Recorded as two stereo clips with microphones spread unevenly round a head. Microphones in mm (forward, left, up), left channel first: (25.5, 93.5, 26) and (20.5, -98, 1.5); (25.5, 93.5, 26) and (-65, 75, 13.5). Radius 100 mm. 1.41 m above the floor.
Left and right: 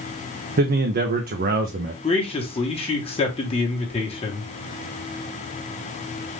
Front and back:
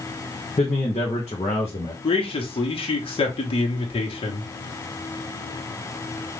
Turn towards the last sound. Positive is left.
turn(degrees=30)